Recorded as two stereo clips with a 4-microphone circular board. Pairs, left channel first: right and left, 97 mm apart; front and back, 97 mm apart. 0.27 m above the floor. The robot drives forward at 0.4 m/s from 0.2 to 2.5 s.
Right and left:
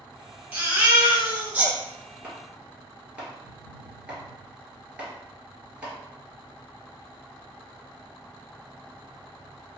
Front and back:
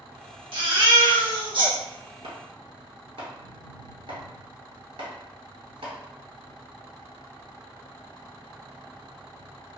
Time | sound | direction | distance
0.5 | a baby crying | 160° left | 1.3 m
2.2 | chopping | 165° left | 1.1 m